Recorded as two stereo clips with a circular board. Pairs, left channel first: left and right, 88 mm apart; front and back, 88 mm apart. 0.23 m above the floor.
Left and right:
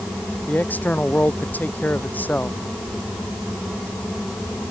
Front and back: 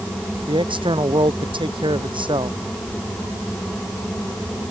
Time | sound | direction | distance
0.5 | a man speaking | 160° left | ?